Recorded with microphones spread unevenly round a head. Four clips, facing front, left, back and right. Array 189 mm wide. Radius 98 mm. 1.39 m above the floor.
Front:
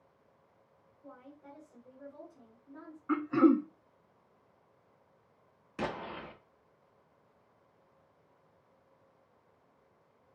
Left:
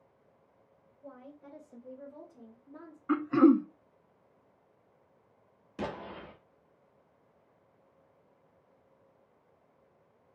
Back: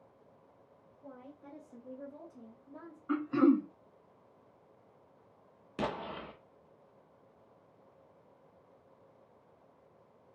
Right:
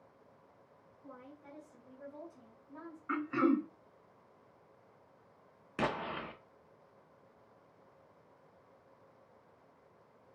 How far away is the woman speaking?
About 2.5 m.